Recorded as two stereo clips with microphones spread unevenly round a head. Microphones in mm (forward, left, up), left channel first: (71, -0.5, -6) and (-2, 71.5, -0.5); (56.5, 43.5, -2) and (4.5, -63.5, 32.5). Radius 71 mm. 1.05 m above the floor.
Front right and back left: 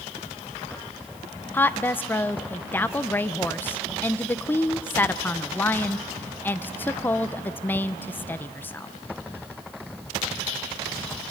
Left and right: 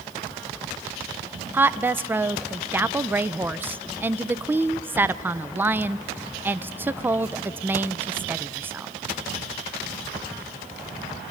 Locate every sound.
1.5 s a woman speaking: 25° right, 0.6 m